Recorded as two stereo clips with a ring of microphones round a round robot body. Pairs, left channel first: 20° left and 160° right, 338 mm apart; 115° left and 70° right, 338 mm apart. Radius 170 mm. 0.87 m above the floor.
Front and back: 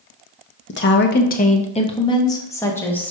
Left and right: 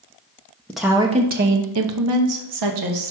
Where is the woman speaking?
30° left, 0.6 m; by 3.1 s 65° right, 1.3 m.